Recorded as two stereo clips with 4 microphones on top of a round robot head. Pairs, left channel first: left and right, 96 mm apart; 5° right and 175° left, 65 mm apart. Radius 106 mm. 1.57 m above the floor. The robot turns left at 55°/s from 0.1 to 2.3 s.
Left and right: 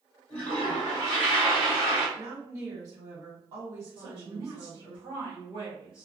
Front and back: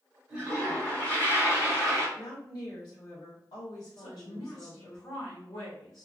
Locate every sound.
0.3 s a toilet flushing: 95° left, 2.0 m; by 2.1 s straight ahead, 2.0 m
2.2 s a woman speaking: 25° right, 1.5 m; by 5.0 s 30° right, 1.5 m
4.0 s a woman speaking: 45° right, 1.0 m